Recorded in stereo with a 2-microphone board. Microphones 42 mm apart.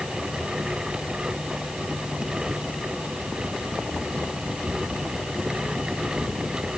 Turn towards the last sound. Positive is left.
No sound to turn to.